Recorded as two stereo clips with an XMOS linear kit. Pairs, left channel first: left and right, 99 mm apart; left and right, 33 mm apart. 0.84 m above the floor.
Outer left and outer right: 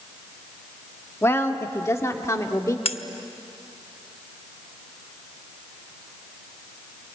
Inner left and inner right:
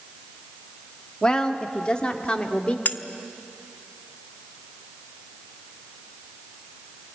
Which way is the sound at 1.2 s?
25° left (ahead or behind).